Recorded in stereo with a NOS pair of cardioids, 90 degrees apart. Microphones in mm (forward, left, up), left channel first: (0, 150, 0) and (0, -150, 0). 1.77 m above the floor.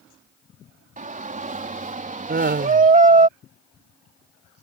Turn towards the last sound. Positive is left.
turn(degrees=-35)